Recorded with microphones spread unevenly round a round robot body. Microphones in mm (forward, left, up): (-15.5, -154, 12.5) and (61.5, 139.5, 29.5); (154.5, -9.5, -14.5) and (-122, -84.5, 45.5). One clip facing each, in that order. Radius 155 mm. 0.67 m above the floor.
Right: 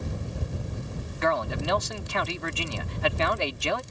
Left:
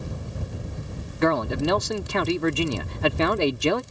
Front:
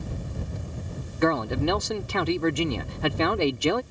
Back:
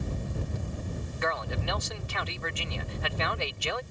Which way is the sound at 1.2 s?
40° left.